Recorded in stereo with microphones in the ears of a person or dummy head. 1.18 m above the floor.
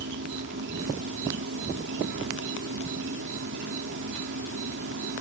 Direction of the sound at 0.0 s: 65° right (ahead or behind).